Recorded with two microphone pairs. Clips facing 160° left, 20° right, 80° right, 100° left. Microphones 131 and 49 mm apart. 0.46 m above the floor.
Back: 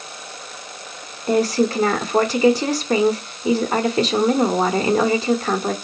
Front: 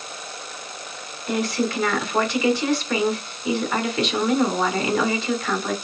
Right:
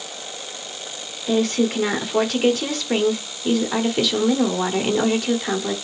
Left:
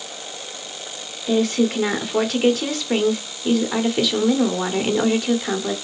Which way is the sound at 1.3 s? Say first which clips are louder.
Back 6 dB, left 1 dB; 170° right.